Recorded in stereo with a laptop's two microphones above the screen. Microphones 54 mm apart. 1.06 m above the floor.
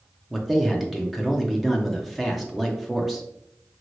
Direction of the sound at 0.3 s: Centre (ahead or behind).